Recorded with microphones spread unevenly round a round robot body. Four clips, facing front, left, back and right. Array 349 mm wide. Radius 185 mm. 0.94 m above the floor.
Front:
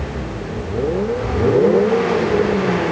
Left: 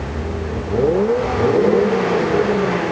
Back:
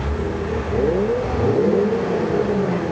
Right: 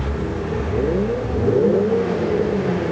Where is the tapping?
I don't hear tapping.